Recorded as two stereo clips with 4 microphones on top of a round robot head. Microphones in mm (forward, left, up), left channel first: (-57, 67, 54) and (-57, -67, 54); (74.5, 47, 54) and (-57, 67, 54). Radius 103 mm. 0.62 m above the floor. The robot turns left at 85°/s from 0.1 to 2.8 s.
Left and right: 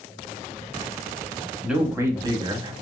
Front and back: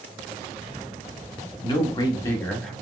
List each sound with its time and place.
1.6 s a man speaking: 5° right, 1.2 m; by 2.7 s 100° right, 1.2 m